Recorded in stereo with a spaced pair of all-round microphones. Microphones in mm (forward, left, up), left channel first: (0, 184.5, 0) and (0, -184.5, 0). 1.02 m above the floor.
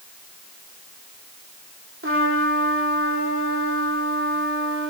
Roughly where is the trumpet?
Right.